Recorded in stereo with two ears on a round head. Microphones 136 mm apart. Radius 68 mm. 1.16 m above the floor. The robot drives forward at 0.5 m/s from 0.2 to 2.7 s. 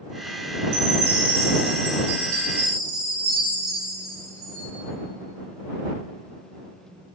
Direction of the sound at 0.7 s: 75° right (ahead or behind).